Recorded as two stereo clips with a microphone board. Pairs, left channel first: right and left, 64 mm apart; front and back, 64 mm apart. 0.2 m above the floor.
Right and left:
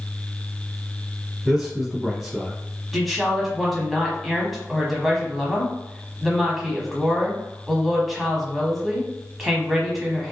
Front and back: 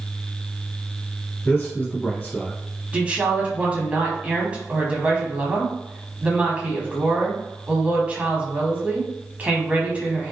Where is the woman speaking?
175° left, 1.0 m.